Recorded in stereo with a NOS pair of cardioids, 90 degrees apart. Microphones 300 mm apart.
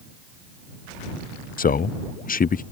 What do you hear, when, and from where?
1.6 s a man speaking: 30° left